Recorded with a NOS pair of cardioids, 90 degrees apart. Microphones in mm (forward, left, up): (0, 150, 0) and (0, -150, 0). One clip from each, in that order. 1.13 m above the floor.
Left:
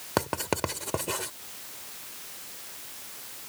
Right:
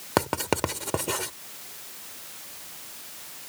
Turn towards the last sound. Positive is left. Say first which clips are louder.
# right 3 dB
turn(degrees=-15)